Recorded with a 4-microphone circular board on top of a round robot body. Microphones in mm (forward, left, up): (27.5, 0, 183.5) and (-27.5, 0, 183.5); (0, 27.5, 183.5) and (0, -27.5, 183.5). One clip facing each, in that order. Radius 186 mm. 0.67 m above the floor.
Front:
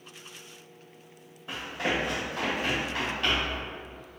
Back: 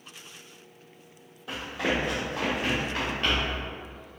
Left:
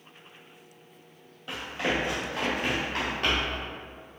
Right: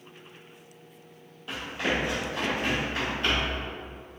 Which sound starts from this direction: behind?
Running footsteps, at 1.5 s.